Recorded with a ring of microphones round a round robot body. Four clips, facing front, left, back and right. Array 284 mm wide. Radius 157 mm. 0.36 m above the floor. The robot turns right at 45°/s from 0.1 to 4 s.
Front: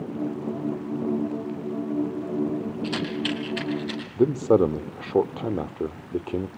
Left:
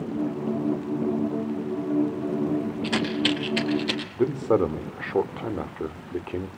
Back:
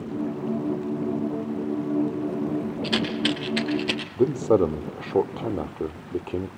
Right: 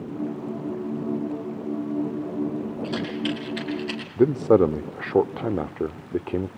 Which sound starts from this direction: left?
A rattle, at 2.8 s.